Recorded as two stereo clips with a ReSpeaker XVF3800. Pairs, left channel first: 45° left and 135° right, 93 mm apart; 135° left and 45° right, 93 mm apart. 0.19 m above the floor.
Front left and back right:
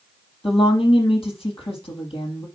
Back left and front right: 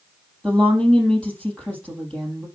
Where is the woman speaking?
60° left, 5 m.